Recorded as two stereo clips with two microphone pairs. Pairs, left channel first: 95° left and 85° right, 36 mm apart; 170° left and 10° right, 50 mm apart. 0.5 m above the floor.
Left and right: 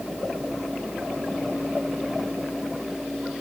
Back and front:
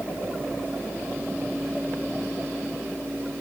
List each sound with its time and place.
Only background noise.